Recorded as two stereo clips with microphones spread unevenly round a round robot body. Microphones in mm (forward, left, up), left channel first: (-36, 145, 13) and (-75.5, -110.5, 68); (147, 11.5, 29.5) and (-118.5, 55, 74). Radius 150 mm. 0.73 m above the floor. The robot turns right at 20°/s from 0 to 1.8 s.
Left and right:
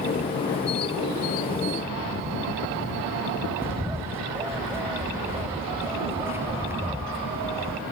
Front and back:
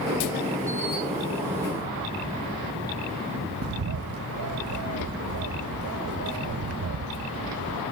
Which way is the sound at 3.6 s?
170° left.